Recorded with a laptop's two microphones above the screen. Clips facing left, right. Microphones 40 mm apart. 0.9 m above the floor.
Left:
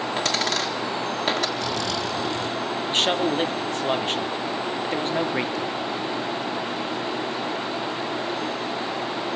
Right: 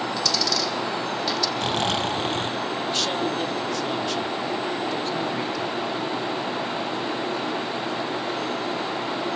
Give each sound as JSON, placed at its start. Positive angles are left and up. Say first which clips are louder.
{"t": 0.2, "sound": "a dropped coin", "louder": "left 3 dB", "side_deg": 45, "distance_m": 1.7}
{"t": 1.6, "sound": "snoring", "louder": "right 2 dB", "side_deg": -45, "distance_m": 0.8}
{"t": 2.9, "sound": "a man speaking", "louder": "left 5 dB", "side_deg": 40, "distance_m": 2.0}